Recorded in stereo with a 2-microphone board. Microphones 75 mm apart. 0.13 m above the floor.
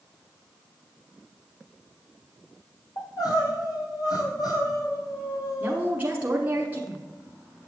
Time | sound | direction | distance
3.0 | crying | 60° left (ahead or behind) | 2 m
5.6 | a woman speaking | 20° right (ahead or behind) | 1.1 m